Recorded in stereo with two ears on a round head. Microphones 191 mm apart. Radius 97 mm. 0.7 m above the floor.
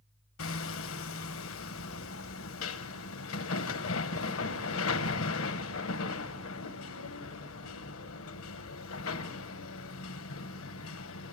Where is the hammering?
75° left (ahead or behind), 1.2 m.